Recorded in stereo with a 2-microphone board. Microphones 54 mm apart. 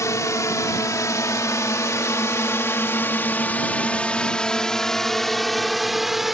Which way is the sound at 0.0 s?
75° left (ahead or behind).